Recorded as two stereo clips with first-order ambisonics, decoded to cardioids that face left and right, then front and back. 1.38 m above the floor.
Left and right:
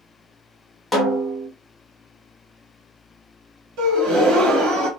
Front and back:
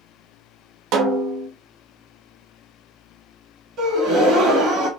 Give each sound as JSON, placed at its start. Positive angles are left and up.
{"t": 0.9, "sound": "a snare drum", "azimuth_deg": 175, "distance_m": 0.7}
{"t": 3.8, "sound": "a gasp", "azimuth_deg": -130, "distance_m": 1.1}